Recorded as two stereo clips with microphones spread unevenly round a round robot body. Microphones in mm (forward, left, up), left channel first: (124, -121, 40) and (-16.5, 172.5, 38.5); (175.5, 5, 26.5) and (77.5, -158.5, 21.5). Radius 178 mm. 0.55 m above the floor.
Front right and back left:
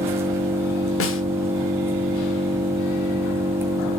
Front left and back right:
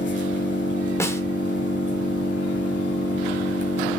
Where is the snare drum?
20° right, 1.5 m.